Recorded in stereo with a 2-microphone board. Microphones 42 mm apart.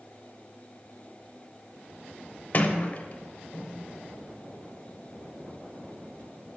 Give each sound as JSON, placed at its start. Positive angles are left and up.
{"t": 2.5, "sound": "a sliding door", "side_deg": 40, "distance_m": 0.6}